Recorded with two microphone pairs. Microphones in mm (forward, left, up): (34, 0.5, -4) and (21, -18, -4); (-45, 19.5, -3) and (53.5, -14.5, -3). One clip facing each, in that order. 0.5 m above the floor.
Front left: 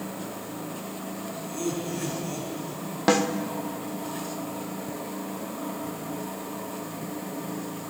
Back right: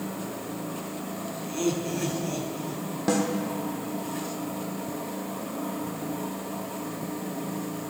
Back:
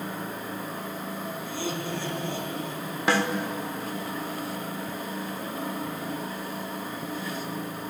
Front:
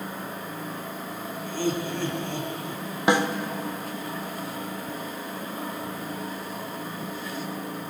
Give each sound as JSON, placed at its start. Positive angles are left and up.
{"t": 1.4, "sound": "laughter", "azimuth_deg": -65, "distance_m": 5.5}
{"t": 3.1, "sound": "a snare drum", "azimuth_deg": 45, "distance_m": 1.1}